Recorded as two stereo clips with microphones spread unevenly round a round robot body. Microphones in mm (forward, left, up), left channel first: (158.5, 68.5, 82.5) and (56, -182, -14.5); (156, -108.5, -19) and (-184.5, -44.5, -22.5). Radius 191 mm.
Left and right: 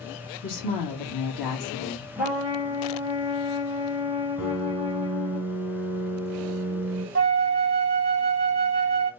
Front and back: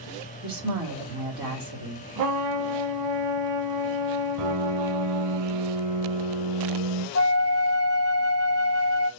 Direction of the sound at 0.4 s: 105° left.